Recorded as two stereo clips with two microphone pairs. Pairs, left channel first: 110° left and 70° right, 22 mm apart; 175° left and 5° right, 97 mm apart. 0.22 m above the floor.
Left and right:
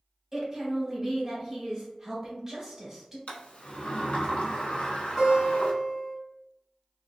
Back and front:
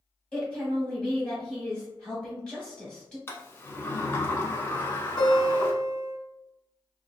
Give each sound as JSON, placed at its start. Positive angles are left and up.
{"t": 0.3, "sound": "a woman speaking", "azimuth_deg": -115, "distance_m": 1.1}
{"t": 3.3, "sound": "a sliding door", "azimuth_deg": 110, "distance_m": 0.6}
{"t": 5.2, "sound": "a guitar", "azimuth_deg": 165, "distance_m": 1.1}